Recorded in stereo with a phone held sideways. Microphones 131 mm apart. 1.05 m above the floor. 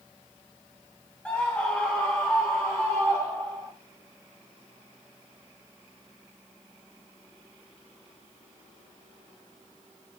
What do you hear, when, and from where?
1.2 s a scream: 10° left (ahead or behind), 1.8 m; by 3.7 s 5° left (ahead or behind), 4 m